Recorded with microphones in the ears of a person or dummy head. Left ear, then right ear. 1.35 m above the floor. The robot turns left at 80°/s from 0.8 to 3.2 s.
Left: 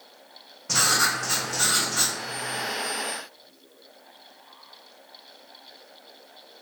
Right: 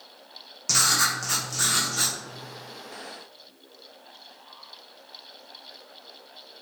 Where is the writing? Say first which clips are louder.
Even; 95° right, 1.1 m; by 2.1 s 155° left, 1.1 m.